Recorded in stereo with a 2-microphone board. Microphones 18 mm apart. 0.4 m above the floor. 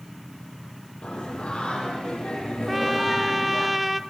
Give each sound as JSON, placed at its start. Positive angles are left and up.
{"t": 1.0, "sound": "singing", "side_deg": 80, "distance_m": 10.0}
{"t": 2.7, "sound": "a trumpet", "side_deg": 0, "distance_m": 0.8}